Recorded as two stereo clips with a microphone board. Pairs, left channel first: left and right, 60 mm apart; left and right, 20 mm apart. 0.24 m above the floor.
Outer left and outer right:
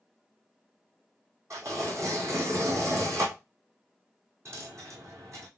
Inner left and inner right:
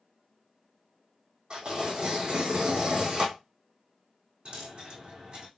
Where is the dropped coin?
55° right (ahead or behind), 2.5 m.